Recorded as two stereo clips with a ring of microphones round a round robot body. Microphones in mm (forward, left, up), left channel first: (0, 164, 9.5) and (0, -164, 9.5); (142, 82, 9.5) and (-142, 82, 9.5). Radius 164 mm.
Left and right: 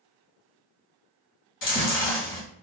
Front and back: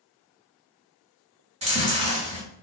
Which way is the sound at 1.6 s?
125° left.